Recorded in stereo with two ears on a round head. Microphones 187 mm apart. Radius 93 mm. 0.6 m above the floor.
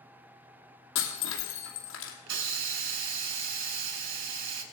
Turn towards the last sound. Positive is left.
turn(degrees=-65)  # may be behind; listen again after turning